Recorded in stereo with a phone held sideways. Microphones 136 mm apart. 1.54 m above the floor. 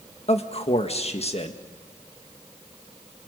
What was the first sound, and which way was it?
A man speaking, 50° left (ahead or behind).